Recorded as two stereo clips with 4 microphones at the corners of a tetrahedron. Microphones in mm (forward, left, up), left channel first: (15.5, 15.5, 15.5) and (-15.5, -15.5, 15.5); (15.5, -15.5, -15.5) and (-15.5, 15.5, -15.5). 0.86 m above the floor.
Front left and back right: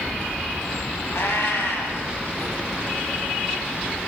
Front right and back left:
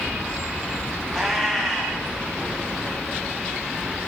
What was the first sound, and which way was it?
A cat meowing, 40° left.